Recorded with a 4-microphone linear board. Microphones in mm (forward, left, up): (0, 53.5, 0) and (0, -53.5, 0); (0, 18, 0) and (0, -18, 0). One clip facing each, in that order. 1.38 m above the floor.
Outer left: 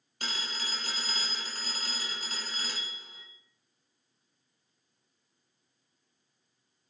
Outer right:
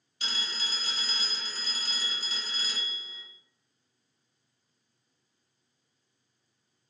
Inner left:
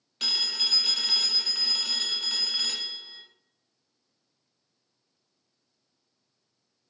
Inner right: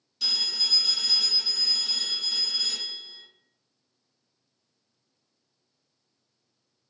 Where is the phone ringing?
50° left (ahead or behind), 0.6 m.